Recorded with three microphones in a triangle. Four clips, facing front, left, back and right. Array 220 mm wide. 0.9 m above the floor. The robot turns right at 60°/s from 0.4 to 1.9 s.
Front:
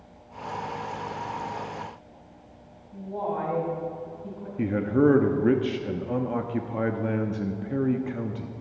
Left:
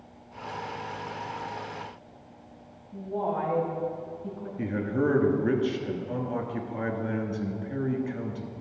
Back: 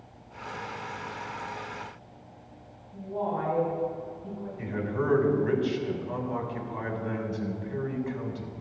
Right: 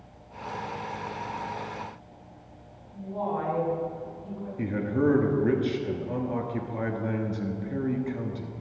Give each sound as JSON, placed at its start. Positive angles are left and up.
{"t": 2.9, "sound": "a woman speaking", "azimuth_deg": 55, "distance_m": 5.0}
{"t": 4.6, "sound": "a man speaking", "azimuth_deg": -5, "distance_m": 1.2}